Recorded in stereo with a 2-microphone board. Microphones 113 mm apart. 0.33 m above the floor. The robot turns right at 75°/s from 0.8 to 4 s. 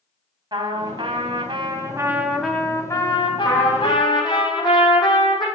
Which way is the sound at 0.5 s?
125° right.